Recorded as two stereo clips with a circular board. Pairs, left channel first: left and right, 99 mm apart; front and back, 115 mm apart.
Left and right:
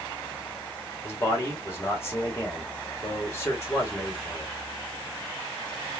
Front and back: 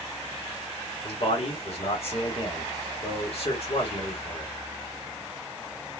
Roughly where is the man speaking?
Ahead left.